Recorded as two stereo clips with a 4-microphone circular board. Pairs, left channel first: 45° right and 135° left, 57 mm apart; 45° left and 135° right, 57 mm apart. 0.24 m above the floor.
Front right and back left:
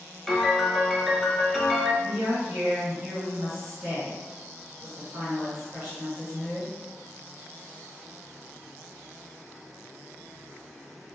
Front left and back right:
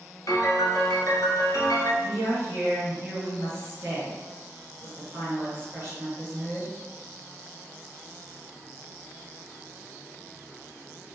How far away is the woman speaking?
About 1.7 m.